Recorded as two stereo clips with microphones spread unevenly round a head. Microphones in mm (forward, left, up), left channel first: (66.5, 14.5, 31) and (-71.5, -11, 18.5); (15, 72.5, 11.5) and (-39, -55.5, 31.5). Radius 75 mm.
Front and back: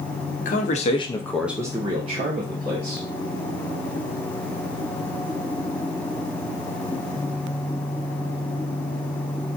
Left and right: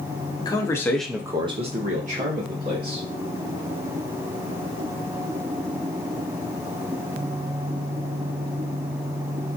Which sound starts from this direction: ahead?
A man speaking, at 0.4 s.